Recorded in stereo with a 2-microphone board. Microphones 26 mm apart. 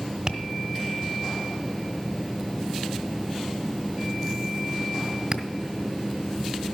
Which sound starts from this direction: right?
Tapping, at 0.3 s.